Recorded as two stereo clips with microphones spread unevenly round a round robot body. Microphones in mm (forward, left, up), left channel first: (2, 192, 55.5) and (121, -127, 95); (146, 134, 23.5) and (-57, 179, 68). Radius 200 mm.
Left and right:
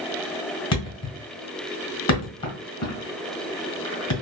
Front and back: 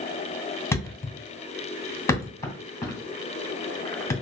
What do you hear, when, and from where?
0.7 s a thud: 65° left, 2.5 m